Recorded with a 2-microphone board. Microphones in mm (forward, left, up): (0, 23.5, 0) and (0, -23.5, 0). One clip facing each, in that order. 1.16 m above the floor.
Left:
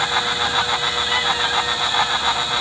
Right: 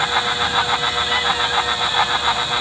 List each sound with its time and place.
Only background noise.